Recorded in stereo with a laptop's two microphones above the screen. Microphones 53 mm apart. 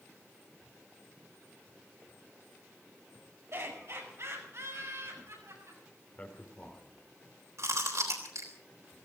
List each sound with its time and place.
3.5 s laughter: 55° right (ahead or behind), 5 m; by 5.8 s 70° right (ahead or behind), 8 m
6.2 s a man speaking: 30° left (ahead or behind), 2.5 m
7.6 s chewing: 80° right, 4 m